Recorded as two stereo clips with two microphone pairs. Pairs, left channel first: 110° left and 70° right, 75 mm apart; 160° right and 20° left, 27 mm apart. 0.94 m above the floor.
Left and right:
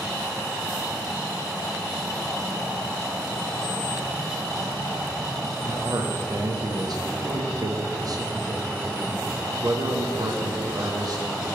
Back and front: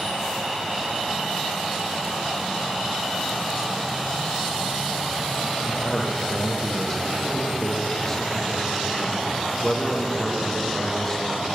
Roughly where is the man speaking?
Right.